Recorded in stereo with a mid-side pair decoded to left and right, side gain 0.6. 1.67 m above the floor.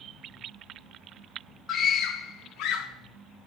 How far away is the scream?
About 1.0 m.